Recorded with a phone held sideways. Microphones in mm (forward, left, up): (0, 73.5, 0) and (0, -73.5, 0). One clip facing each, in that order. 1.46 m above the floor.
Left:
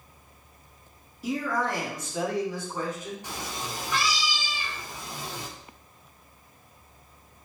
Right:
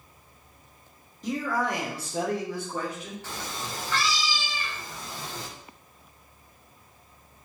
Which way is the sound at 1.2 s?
5° left (ahead or behind).